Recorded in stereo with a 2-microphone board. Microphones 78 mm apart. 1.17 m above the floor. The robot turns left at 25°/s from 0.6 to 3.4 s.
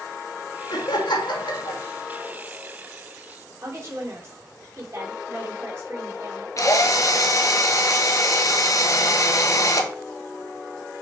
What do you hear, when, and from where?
0.7 s laughter: 65° left (ahead or behind), 1.9 m; by 1.8 s 85° left, 1.9 m
3.6 s a woman speaking: 40° right (ahead or behind), 3 m
6.6 s a drill: 45° left (ahead or behind), 1.1 m